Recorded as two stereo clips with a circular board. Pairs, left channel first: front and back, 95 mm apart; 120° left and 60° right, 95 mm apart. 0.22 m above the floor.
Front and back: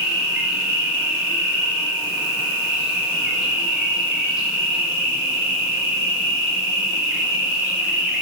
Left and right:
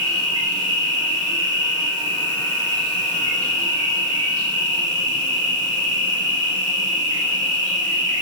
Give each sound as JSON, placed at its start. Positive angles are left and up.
{"t": 0.0, "sound": "an insect", "azimuth_deg": -105, "distance_m": 1.2}